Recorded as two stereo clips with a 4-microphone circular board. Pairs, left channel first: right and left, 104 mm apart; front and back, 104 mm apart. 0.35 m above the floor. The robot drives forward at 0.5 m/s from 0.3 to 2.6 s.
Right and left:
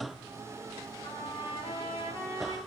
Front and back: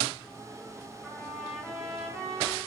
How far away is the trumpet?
About 1.7 m.